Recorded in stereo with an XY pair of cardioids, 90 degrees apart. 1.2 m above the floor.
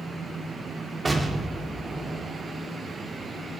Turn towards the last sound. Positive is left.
turn(degrees=-35)